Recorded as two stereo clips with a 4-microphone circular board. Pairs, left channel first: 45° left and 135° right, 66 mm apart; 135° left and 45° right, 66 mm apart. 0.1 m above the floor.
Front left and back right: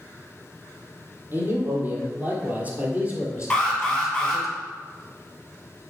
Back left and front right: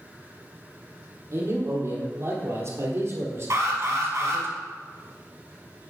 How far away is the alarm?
About 2 m.